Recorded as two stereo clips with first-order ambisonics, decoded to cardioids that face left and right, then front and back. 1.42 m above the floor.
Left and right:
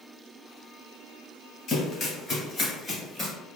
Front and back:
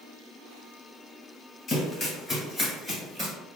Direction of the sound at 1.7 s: 50° left.